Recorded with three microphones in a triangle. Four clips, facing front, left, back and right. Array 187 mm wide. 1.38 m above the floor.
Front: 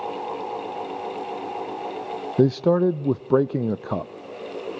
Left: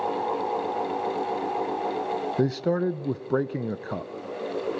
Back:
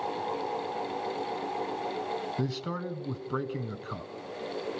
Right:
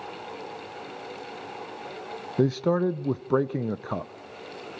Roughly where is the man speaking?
Ahead.